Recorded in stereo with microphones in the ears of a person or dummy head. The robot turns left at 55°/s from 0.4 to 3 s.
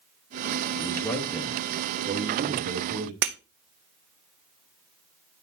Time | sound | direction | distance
0.8 | a man speaking | 30° left | 2.5 m
3.2 | breaking glass | 45° right (ahead or behind) | 0.9 m